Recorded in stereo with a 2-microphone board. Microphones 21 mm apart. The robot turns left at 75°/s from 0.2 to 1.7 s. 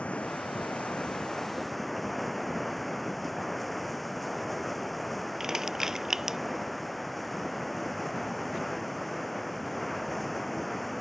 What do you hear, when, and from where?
0.0 s running water: 120° left; by 11.0 s 5° left
5.4 s crushing: 20° right (ahead or behind)